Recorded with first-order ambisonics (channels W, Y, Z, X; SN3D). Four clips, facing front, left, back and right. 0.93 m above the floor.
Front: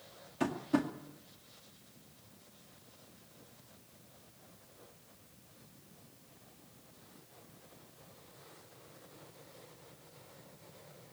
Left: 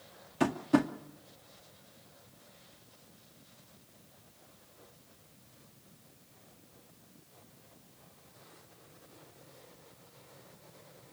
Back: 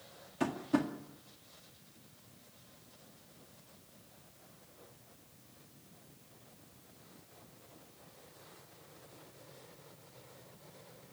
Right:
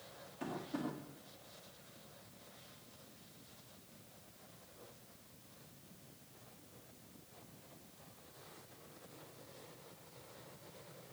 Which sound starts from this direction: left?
Tapping, at 0.4 s.